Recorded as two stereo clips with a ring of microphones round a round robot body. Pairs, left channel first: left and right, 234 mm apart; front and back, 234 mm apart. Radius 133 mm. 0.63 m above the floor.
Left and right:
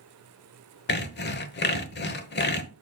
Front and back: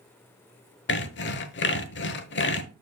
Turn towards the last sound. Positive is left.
turn(degrees=45)